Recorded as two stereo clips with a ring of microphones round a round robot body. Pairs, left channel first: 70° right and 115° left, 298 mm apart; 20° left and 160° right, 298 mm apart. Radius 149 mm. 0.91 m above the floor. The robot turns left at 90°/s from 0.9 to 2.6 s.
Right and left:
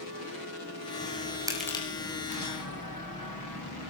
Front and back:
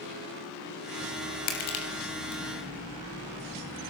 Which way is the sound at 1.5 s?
35° left.